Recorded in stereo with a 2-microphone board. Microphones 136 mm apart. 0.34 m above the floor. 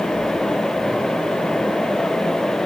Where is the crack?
No crack in this recording.